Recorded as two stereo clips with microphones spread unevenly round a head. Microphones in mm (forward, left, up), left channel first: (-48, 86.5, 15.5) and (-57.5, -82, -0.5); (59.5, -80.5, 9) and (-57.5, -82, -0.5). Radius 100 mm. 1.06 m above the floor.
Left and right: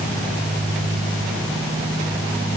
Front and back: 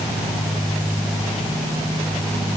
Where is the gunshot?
No gunshot in this recording.